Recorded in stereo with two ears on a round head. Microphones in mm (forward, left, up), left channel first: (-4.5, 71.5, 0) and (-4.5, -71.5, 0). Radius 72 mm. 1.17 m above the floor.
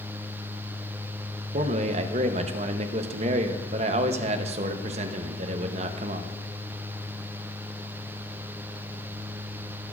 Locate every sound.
1.5 s a man speaking: 40° right (ahead or behind), 0.7 m